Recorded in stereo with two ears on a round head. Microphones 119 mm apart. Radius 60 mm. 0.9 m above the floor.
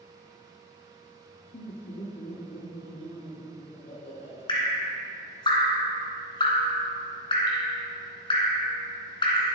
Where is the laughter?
70° left (ahead or behind), 1.3 m; by 4.4 s 65° left (ahead or behind), 4.5 m.